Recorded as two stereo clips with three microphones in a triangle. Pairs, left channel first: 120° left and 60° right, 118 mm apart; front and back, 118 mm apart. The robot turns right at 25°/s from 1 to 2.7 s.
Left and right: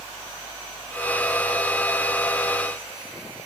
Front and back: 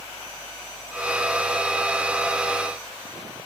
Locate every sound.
Only background noise.